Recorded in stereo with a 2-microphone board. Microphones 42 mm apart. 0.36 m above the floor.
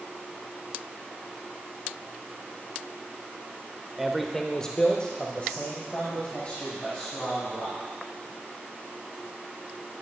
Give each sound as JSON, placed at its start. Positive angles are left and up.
{"t": 4.0, "sound": "a man speaking", "side_deg": -5, "distance_m": 0.8}